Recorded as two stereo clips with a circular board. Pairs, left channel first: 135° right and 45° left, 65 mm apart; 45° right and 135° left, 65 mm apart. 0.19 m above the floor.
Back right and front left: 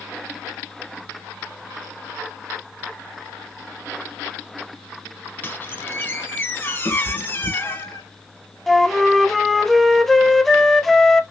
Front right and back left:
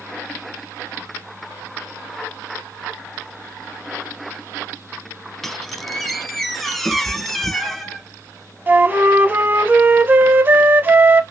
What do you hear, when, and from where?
5.4 s a squeak: 130° right, 0.7 m
6.8 s a cat meowing: 135° right, 1.2 m
8.7 s a flute: 140° left, 0.5 m